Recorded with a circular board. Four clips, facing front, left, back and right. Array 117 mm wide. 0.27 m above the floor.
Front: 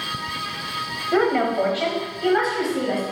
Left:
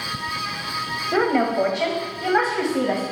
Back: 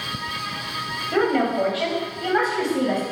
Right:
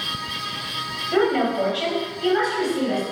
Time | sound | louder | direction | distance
1.1 | a woman speaking | even, front 1 dB | 45° left | 1.6 m